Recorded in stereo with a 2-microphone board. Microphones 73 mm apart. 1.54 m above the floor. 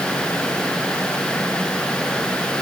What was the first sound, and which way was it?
Only background noise.